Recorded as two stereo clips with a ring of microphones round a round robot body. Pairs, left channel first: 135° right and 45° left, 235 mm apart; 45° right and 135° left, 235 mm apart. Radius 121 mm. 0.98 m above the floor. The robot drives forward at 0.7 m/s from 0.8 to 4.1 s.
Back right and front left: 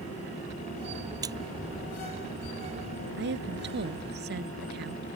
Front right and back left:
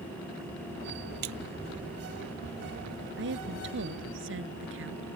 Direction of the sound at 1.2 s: 120° left.